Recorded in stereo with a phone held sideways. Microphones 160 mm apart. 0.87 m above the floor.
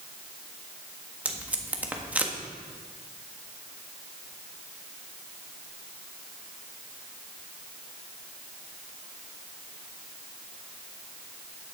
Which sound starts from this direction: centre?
Tape being pulled, at 1.2 s.